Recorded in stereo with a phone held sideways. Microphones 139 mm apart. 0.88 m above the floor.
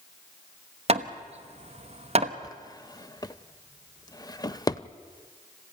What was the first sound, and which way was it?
Hammering, 50° right (ahead or behind).